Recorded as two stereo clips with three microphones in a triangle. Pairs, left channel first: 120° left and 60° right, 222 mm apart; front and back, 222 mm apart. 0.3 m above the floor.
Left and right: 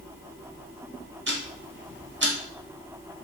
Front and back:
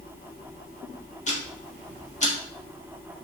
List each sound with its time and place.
1.3 s ticking: 50° right, 0.6 m